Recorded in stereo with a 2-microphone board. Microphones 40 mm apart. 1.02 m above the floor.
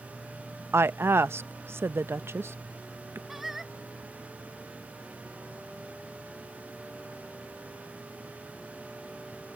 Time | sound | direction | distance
0.7 | a woman speaking | 80° right | ?
3.3 | singing | 5° right (ahead or behind) | ?